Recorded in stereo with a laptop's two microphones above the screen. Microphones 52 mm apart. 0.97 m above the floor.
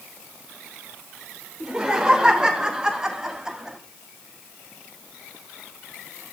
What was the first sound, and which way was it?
Laughter, 20° right (ahead or behind).